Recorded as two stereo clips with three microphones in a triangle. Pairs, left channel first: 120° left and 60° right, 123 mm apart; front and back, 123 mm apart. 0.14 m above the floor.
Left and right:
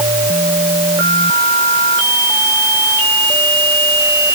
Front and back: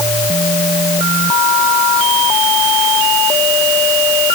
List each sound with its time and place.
Only background noise.